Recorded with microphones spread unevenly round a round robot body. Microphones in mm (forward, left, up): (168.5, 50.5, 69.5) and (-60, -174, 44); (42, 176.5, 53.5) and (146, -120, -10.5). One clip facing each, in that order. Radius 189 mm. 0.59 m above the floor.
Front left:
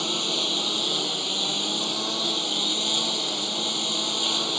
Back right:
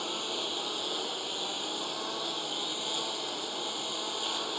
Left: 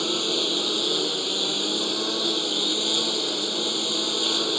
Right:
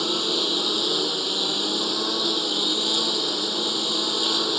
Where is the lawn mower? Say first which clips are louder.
Front left 7 dB, even; 15° left.